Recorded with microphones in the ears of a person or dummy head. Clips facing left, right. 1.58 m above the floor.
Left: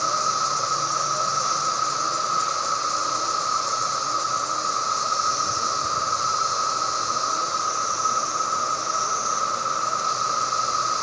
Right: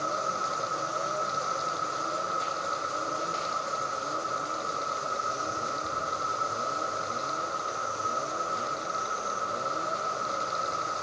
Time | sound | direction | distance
0.0 | an insect | 75° left (ahead or behind) | ?